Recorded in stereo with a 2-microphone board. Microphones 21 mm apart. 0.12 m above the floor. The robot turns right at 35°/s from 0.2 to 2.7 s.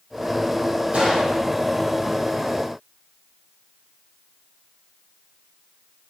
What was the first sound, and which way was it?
A gunshot, 70° right (ahead or behind).